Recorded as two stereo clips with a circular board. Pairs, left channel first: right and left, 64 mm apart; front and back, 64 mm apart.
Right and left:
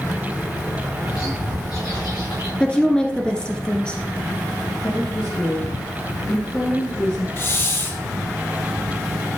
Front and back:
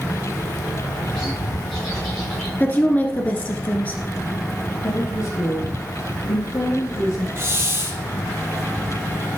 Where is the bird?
80° right, 5.5 m.